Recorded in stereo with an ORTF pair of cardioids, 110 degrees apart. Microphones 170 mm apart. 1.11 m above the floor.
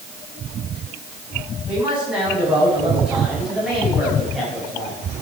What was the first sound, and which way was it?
A man speaking, 10° right.